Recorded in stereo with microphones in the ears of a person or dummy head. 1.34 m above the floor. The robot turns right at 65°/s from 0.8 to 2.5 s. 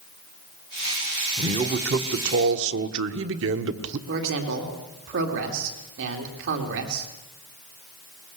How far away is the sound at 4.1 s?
About 2.5 m.